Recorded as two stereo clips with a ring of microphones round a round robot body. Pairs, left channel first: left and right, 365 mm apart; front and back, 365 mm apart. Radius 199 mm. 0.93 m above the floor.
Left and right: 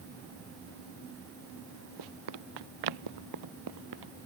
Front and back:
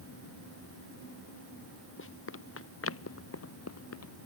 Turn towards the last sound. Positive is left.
turn(degrees=-50)